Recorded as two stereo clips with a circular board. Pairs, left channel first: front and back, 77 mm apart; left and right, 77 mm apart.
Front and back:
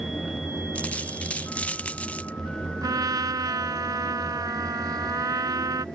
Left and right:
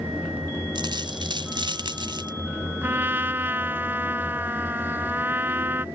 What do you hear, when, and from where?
0.8 s a dropped coin: 70° right
2.8 s a trumpet: 150° right